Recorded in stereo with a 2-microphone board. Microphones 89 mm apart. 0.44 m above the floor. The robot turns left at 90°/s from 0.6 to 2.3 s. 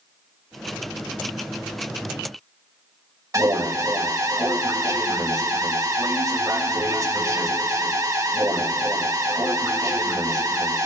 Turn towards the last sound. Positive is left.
turn(degrees=-40)  # may be behind; listen again after turning